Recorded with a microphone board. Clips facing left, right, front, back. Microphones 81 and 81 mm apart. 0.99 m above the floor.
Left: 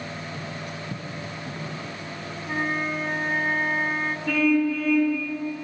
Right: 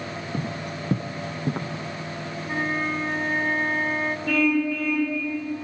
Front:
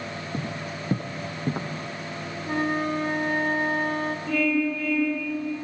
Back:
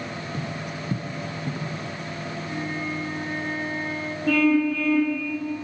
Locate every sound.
0.3 s footsteps: 55° right, 1.7 m; by 1.7 s 45° right, 3 m
2.5 s a flute: 5° left, 1.7 m
4.3 s a car horn: 175° left, 8 m